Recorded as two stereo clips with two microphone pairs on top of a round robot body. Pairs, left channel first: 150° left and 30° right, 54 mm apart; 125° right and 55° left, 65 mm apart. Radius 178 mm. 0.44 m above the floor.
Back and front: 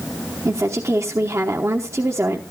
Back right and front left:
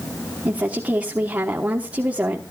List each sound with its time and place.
0.5 s a woman speaking: 15° right, 1.3 m